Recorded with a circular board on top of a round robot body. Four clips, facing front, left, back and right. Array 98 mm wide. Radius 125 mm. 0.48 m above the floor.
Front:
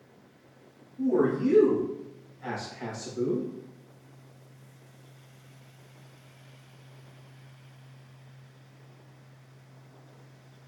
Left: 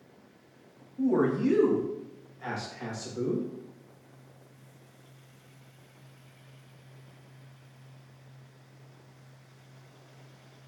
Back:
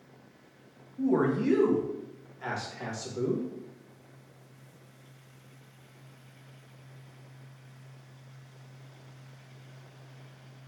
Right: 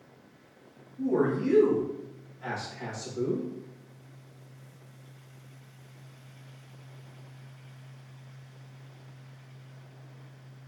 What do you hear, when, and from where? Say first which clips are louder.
1.0 s a man speaking: left 1 dB, front 2 dB; 135° left, 1.0 m; by 3.5 s 165° left, 2.5 m